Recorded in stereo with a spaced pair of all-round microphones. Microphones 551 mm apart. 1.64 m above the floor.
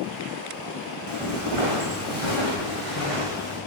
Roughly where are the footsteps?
Left.